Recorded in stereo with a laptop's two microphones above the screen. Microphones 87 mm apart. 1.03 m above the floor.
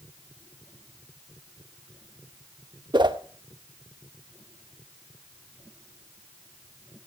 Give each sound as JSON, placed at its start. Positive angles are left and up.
{"t": 2.9, "sound": "a whoosh", "side_deg": -60, "distance_m": 0.8}